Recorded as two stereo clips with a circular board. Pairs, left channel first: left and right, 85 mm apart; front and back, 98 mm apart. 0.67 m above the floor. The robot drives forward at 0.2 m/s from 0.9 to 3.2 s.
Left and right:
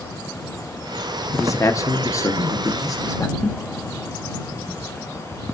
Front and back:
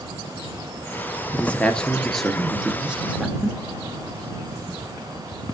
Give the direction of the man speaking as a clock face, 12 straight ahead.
10 o'clock.